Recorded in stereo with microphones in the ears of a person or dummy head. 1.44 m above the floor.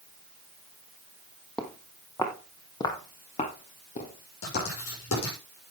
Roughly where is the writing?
Left.